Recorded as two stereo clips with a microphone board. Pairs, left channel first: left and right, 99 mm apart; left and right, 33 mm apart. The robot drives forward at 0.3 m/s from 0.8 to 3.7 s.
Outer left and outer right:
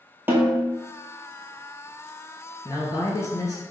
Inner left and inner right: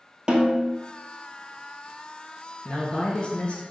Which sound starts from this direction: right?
A snare drum, at 0.3 s.